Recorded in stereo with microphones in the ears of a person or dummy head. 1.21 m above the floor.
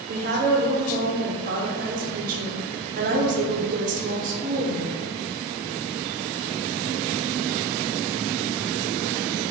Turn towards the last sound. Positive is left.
turn(degrees=-40)  # may be behind; listen again after turning